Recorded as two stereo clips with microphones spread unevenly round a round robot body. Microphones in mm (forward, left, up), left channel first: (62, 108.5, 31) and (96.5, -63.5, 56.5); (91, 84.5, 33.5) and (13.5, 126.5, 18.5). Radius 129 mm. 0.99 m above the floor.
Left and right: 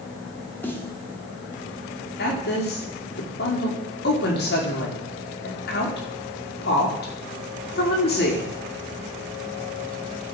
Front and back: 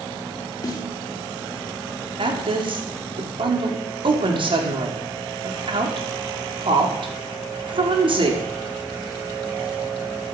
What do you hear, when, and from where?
0.6 s a snare drum: 20° left, 2 m
2.2 s a woman speaking: 135° left, 2 m